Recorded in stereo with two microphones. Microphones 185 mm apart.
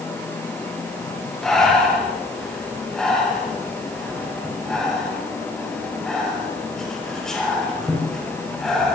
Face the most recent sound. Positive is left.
turn(degrees=5)  # may be behind; listen again after turning